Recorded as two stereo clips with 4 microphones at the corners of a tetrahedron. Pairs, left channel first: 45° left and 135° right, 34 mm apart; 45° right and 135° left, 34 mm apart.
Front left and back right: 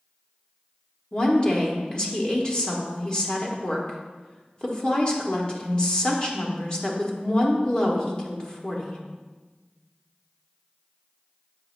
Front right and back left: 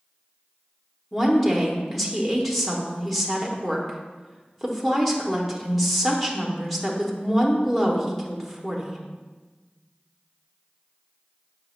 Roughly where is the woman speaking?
Ahead left.